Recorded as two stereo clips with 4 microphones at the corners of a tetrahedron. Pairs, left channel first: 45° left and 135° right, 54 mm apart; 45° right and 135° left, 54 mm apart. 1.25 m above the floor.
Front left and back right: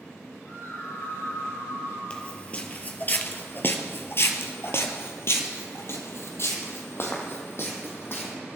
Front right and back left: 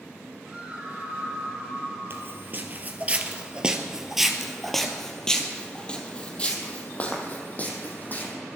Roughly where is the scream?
Left.